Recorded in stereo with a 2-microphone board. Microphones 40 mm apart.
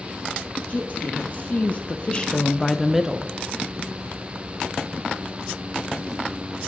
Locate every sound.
0.7 s a woman speaking: 40° left (ahead or behind), 1.3 m; by 3.4 s 15° right (ahead or behind), 0.7 m